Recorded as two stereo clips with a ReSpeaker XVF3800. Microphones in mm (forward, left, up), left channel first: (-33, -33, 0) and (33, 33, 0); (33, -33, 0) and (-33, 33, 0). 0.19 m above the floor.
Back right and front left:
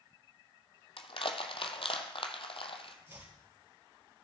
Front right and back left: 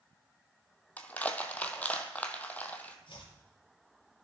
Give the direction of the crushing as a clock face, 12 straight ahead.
4 o'clock.